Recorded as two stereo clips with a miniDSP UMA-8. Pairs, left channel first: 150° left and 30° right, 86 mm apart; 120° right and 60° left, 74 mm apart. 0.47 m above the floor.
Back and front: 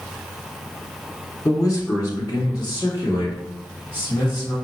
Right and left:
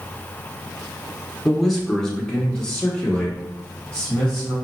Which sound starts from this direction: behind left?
A man speaking, at 1.4 s.